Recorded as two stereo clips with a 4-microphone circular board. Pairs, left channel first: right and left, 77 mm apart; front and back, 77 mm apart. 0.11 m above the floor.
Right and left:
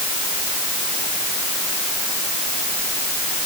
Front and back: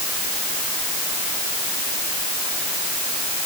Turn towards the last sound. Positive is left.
No sound to turn to.